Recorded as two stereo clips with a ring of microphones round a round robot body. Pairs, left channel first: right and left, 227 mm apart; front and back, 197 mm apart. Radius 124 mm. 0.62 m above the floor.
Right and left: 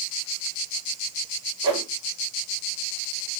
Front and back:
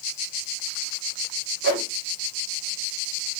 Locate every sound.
1.6 s a whoosh: 160° left, 1.7 m